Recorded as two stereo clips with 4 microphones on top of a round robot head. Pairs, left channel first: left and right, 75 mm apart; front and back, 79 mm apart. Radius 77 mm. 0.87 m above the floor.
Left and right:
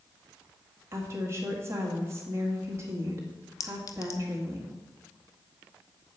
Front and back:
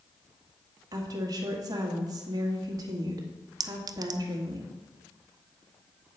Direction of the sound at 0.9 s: 140° right.